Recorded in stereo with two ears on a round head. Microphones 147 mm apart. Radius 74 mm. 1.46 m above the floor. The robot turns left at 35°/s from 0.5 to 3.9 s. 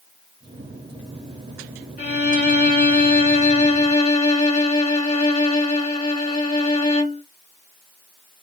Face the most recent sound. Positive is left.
turn(degrees=45)